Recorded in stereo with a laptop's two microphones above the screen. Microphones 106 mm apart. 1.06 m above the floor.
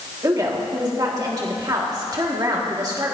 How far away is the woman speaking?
About 2.0 m.